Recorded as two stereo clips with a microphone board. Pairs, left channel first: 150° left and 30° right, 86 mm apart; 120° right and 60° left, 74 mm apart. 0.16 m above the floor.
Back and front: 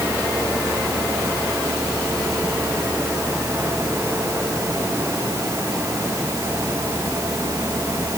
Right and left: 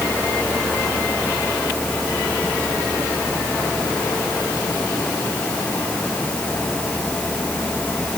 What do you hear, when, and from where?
Only background noise.